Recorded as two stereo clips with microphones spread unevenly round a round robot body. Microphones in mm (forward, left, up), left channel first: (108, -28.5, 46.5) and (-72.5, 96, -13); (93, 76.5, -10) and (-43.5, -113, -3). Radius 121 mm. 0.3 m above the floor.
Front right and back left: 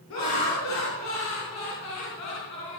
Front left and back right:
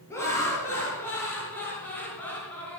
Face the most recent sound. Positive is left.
turn(degrees=-30)